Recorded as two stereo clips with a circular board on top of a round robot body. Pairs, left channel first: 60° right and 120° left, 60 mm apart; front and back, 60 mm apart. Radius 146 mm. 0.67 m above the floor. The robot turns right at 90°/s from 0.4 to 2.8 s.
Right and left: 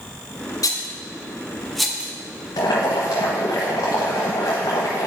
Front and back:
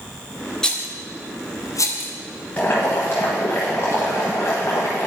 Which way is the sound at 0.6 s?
75° right.